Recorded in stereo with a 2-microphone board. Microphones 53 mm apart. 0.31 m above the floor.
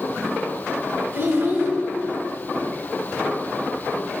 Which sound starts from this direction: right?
A child speaking, at 1.1 s.